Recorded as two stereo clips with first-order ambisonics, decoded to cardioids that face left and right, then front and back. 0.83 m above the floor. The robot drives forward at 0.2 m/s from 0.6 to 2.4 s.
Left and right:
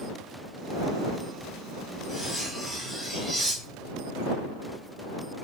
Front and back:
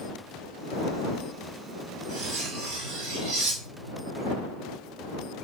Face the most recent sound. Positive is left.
turn(degrees=175)